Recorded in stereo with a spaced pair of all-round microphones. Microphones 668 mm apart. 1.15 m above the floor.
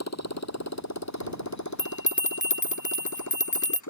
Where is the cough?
I don't hear a cough.